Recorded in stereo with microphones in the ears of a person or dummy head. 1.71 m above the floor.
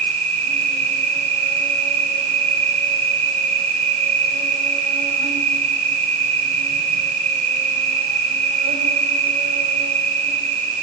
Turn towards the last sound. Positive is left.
turn(degrees=-40)  # may be behind; listen again after turning